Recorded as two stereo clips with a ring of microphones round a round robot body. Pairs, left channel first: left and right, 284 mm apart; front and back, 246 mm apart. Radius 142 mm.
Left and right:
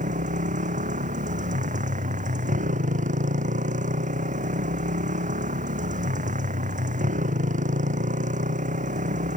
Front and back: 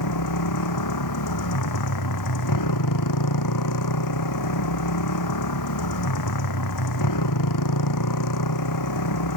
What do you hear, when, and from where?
0.0 s a motorcycle: 25° right